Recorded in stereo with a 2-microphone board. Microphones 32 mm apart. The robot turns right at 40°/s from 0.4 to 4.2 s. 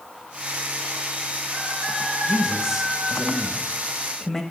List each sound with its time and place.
2.2 s a man speaking: 20° right (ahead or behind), 1.1 m; by 4.4 s 5° left (ahead or behind), 1.1 m